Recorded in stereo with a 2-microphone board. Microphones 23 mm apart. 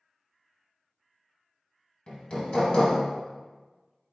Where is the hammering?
50° left (ahead or behind), 1.2 m.